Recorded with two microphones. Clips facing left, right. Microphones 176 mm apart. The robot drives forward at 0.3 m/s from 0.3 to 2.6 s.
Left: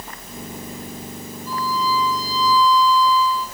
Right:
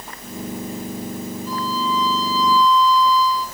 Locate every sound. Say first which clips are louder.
1.5 s a violin: left 2 dB; 15° left (ahead or behind), 9.5 m; by 3.5 s 10° left (ahead or behind), 9.5 m